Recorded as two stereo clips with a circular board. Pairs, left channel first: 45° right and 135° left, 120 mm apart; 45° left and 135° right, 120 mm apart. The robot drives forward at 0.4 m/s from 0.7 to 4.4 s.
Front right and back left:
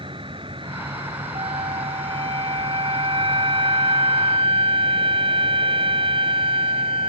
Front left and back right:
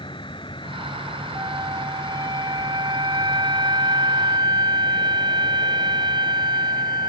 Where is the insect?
90° left; by 7.1 s 125° left.